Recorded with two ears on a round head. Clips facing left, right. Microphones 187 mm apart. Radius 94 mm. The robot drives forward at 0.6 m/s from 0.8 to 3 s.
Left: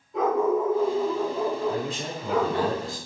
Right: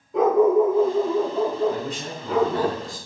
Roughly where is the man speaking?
Left.